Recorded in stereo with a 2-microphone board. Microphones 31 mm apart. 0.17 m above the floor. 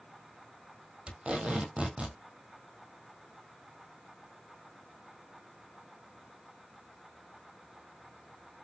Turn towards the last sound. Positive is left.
turn(degrees=-35)  # may be behind; listen again after turning